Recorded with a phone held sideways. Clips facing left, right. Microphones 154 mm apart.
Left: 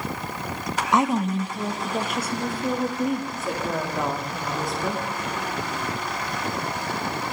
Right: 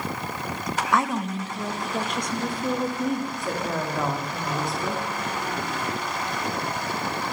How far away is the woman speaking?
About 0.5 m.